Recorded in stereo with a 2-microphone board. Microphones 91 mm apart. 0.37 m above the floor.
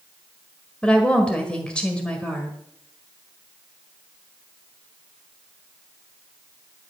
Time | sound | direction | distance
0.8 | a woman speaking | 10° left (ahead or behind) | 1.6 m